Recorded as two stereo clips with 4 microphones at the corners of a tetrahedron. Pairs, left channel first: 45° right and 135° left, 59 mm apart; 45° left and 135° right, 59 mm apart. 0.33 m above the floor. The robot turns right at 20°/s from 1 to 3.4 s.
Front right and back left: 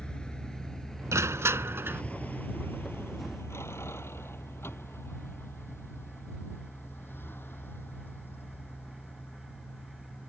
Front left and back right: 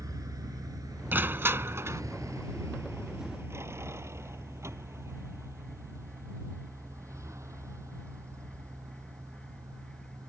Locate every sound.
0.0 s a vehicle: 120° right; by 10.3 s 100° right
1.1 s crushing: 170° left; by 2.0 s 170° right